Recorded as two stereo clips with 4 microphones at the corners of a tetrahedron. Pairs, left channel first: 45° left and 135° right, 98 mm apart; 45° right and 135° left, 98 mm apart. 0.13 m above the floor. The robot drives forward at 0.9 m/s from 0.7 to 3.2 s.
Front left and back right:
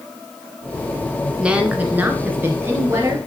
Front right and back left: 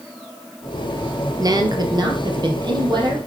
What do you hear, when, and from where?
1.4 s a woman speaking: 150° left, 1.6 m; by 3.2 s 165° left, 3 m